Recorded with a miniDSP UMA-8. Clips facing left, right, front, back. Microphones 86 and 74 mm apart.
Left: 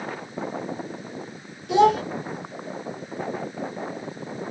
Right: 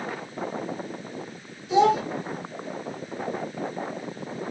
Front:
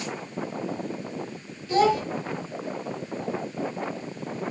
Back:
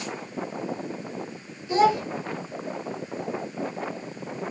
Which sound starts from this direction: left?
A child speaking, at 1.7 s.